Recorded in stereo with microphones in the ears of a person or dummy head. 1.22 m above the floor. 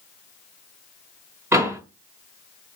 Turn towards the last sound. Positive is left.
turn(degrees=-15)  # may be behind; listen again after turning